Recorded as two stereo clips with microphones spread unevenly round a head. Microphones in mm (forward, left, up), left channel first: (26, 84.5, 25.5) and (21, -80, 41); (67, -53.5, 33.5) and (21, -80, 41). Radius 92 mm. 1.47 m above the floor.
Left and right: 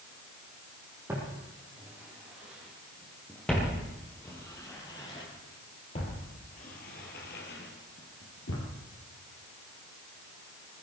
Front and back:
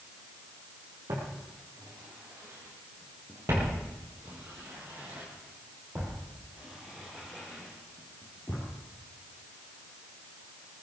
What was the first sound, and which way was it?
Footsteps, 170° right.